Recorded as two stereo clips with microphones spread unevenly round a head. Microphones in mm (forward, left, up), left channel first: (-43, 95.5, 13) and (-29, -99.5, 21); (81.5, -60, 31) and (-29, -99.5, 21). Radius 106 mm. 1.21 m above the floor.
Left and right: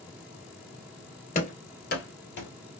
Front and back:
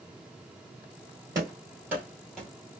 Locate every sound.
1.4 s running footsteps: 135° left, 1.6 m; by 2.5 s 100° left, 1.9 m